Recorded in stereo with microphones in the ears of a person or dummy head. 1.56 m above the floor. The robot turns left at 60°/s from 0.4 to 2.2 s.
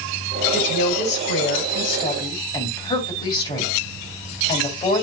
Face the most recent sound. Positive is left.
turn(degrees=25)